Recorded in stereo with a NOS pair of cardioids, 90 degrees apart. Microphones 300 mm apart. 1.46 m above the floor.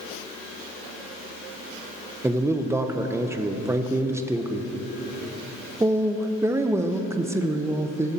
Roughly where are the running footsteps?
I don't hear running footsteps.